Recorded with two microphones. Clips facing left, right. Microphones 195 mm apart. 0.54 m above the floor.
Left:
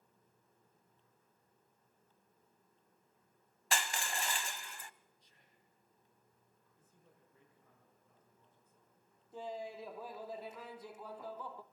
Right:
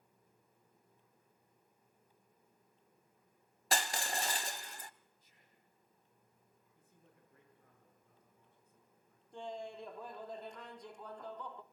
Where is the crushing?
40° right (ahead or behind), 0.5 m.